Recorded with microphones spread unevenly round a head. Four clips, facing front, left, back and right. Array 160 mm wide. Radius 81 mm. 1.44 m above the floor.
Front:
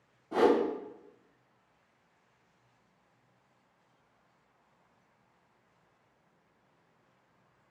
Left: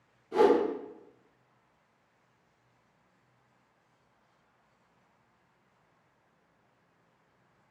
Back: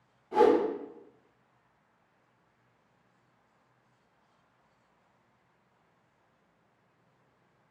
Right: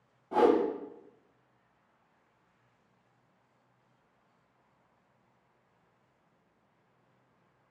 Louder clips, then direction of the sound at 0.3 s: Left 1 dB, back 3 dB; 55° right.